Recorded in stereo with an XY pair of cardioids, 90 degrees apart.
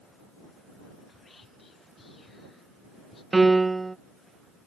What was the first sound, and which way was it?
Whispering, 35° left.